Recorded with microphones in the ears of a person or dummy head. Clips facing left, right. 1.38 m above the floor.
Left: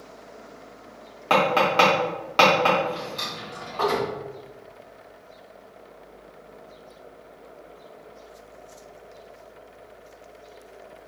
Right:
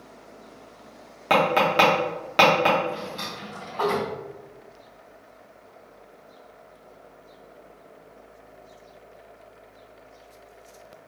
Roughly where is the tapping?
Right.